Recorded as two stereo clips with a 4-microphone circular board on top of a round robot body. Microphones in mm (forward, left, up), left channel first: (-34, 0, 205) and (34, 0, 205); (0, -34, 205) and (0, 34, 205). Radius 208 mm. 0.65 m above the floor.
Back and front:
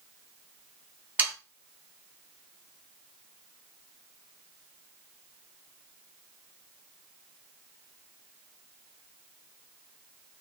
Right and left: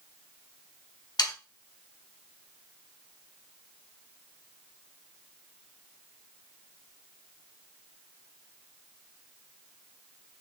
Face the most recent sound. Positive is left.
turn(degrees=-65)